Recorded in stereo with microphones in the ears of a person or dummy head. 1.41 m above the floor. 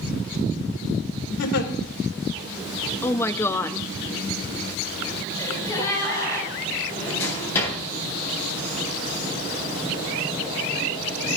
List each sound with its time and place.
1.4 s a giggle: 75° left (ahead or behind), 2.0 m
3.0 s a woman speaking: 10° left (ahead or behind), 0.7 m
5.4 s a gasp: 20° left (ahead or behind), 5 m
6.9 s a drawer: 10° left (ahead or behind), 9 m